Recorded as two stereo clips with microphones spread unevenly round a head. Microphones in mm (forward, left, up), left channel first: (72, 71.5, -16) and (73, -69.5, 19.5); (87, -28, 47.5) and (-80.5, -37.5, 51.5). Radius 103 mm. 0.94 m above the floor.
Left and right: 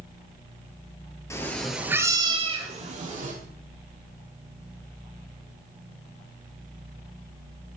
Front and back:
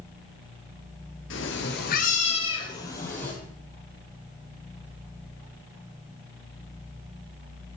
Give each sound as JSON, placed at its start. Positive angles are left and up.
{"t": 1.3, "sound": "a cat meowing", "azimuth_deg": 15, "distance_m": 1.7}